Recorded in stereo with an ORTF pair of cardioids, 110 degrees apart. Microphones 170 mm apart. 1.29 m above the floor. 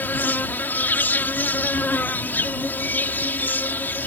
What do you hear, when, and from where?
0.0 s an insect: 10° left